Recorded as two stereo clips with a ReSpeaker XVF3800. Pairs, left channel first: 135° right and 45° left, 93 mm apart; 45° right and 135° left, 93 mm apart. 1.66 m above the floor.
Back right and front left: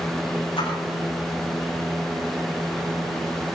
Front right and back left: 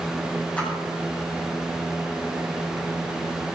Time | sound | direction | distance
0.6 | a splash | 120° right | 8.5 m